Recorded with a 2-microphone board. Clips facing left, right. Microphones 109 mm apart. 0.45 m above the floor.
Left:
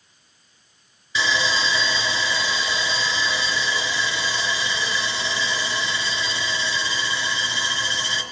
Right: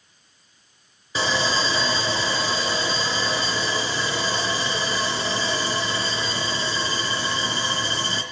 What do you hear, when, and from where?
1.1 s sawing: 40° right (ahead or behind), 3 m